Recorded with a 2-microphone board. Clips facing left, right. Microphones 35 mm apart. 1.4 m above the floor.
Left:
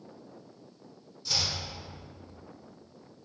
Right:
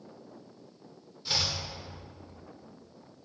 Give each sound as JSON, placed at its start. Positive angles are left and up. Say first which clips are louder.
{"t": 1.2, "sound": "chopping", "louder": "right 1 dB", "side_deg": -30, "distance_m": 1.2}